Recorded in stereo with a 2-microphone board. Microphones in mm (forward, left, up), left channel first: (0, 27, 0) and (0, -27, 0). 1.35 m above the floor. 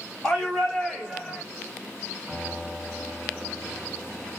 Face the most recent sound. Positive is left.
turn(degrees=0)  # may be behind; listen again after turning